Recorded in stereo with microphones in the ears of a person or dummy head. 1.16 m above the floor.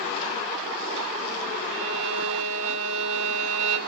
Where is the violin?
80° right, 6 m.